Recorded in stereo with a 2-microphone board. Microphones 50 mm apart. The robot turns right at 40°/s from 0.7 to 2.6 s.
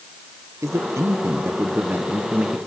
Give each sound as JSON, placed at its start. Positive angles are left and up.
{"t": 0.6, "sound": "a man speaking", "azimuth_deg": -85, "distance_m": 1.2}